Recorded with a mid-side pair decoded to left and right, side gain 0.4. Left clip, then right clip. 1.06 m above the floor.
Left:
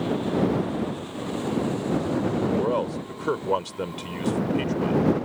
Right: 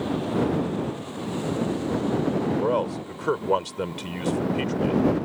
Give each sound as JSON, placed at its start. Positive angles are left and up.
{"t": 2.6, "sound": "a man speaking", "azimuth_deg": -15}